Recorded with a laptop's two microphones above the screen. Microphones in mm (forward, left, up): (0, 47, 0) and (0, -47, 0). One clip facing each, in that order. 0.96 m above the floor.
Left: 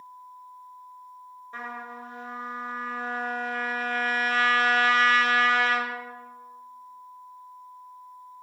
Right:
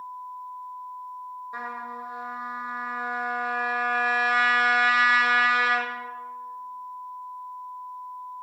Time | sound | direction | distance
1.5 | a trumpet | 15° right (ahead or behind) | 0.8 m